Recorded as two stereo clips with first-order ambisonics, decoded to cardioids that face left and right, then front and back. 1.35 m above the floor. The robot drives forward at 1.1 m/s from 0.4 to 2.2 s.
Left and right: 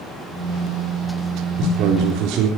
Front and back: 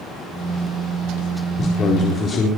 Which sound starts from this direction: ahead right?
A man speaking, at 1.6 s.